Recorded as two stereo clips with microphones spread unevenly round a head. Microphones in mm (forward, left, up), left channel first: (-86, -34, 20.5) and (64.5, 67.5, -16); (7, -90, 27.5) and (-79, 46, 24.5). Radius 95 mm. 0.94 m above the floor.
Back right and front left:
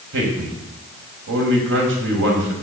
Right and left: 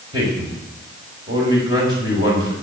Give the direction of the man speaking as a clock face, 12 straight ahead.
10 o'clock.